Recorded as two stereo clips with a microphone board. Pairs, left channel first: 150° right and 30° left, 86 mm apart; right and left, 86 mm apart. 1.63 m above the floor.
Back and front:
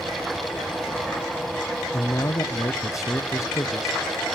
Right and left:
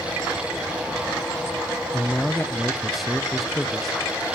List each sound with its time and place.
1.9 s a man speaking: straight behind, 0.6 m